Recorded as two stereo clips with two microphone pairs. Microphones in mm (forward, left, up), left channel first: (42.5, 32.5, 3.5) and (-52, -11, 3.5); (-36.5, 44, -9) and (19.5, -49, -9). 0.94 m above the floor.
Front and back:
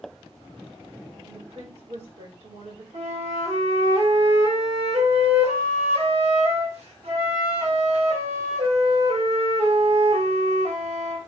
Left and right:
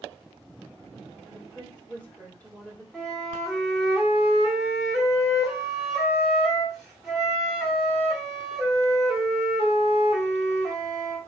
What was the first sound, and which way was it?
A woman speaking, 160° right.